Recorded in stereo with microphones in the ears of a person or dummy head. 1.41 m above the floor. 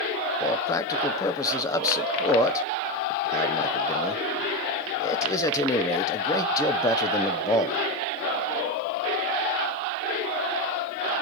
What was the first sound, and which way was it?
A man speaking, 15° left (ahead or behind).